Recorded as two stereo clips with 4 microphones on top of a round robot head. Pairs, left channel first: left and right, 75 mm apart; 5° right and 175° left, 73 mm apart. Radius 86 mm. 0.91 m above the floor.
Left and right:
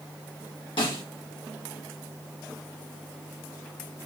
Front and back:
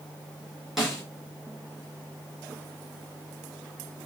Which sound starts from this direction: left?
A snare drum, at 0.8 s.